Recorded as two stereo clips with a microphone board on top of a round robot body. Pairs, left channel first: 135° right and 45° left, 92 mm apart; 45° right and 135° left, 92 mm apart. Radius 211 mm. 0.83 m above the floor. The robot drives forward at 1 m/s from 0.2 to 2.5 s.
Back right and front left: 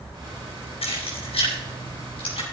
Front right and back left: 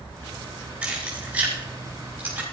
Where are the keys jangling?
150° right, 6 m; by 2.4 s 155° right, 7 m.